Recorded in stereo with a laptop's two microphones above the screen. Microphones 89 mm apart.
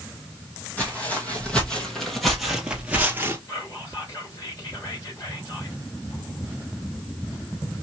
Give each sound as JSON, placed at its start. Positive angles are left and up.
{"t": 0.8, "sound": "footsteps", "side_deg": 15, "distance_m": 2.0}
{"t": 3.5, "sound": "whispering", "side_deg": 40, "distance_m": 3.0}